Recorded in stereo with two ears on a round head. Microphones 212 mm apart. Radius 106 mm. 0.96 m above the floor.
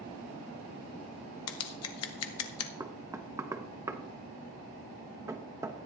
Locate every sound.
1.5 s scissors: 65° left (ahead or behind), 1.1 m
2.8 s knocking: 15° right (ahead or behind), 0.9 m